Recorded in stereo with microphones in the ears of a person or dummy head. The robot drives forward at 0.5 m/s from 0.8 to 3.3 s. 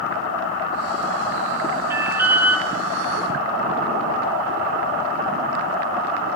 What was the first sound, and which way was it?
An alarm, 15° right (ahead or behind).